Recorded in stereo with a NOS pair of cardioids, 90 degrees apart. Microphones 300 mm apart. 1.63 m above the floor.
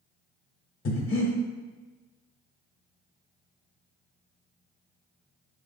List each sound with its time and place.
0.8 s breathing: 40° left, 1.0 m